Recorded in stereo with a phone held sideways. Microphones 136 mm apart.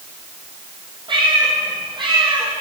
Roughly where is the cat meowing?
Right.